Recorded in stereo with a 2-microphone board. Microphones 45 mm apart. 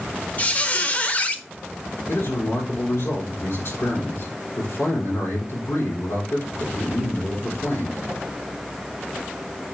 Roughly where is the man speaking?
Left.